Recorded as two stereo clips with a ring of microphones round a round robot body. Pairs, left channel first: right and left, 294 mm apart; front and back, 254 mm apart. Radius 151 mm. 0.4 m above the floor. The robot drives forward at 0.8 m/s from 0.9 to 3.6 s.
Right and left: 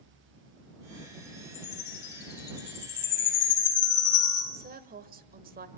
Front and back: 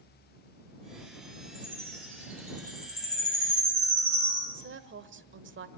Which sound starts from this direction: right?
A chime, at 1.5 s.